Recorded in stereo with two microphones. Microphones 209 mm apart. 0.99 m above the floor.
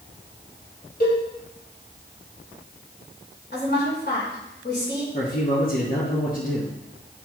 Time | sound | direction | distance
1.0 | a cowbell | 50° left (ahead or behind) | 3.5 m
3.5 | a woman speaking | 55° left (ahead or behind) | 3.5 m
5.1 | a man speaking | 40° left (ahead or behind) | 1.5 m